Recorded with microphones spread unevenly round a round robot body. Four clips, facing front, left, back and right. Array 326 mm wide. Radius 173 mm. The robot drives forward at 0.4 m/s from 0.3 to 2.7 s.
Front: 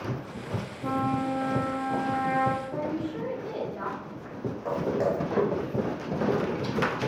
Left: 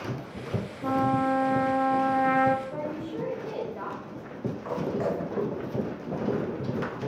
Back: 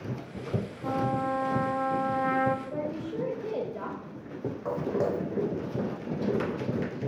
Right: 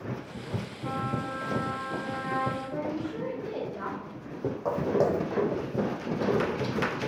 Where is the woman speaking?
Straight behind, 3.5 m.